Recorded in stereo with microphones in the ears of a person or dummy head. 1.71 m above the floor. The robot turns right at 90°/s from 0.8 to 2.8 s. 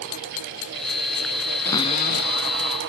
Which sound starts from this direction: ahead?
A cupboard door, at 1.6 s.